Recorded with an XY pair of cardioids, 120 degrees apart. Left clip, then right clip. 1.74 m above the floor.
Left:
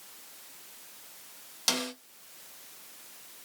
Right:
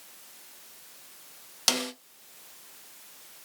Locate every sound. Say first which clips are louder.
1.7 s a snare drum: right 3 dB; 30° right, 0.8 m